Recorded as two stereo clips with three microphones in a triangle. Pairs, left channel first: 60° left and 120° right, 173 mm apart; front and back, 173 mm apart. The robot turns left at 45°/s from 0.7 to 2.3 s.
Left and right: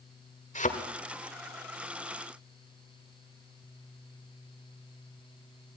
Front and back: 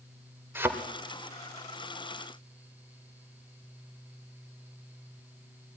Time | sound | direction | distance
0.6 | a thud | 105° left | 1.7 m